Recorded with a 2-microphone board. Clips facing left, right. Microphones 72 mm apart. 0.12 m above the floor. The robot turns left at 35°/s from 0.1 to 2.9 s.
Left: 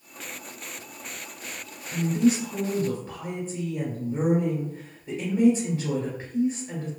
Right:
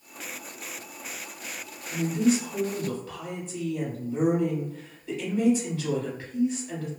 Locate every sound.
1.9 s a woman speaking: 75° left, 1.5 m; by 6.9 s 40° left, 1.5 m